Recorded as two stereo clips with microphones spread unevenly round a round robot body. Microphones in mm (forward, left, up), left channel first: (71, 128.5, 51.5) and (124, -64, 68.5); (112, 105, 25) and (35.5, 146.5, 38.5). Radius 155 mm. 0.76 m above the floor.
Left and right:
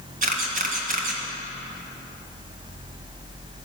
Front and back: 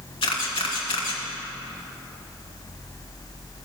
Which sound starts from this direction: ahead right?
A camera shutter, at 0.2 s.